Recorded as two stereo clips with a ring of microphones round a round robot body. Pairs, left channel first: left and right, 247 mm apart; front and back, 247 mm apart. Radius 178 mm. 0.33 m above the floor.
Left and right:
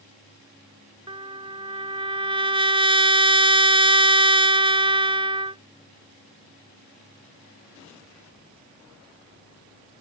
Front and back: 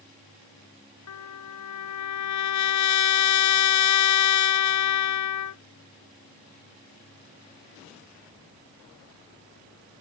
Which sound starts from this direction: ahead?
A trumpet, at 1.1 s.